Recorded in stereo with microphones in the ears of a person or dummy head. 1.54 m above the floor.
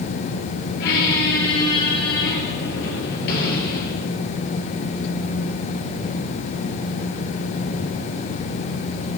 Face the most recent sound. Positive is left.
turn(degrees=60)  # may be behind; listen again after turning